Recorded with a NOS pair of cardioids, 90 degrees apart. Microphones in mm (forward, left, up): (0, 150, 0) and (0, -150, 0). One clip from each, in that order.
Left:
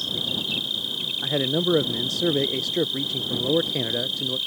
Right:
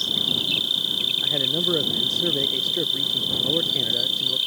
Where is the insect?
25° right.